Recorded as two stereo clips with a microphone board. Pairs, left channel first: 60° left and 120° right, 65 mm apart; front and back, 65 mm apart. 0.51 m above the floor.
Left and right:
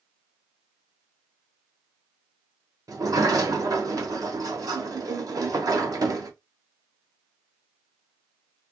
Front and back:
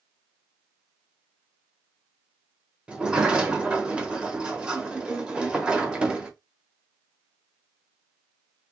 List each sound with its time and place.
2.9 s a sliding door: 105° right, 1.0 m